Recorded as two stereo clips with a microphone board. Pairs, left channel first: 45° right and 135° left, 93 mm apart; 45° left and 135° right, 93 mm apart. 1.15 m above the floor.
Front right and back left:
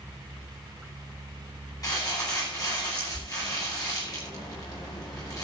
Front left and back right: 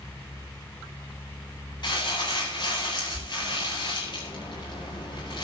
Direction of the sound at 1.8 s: 5° left.